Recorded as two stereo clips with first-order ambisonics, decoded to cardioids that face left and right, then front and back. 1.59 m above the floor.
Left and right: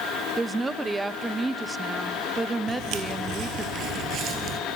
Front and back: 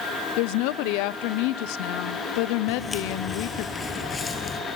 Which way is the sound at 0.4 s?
10° right.